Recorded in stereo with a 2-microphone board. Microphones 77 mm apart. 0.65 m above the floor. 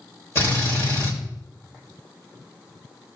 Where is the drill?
35° left (ahead or behind), 3 m.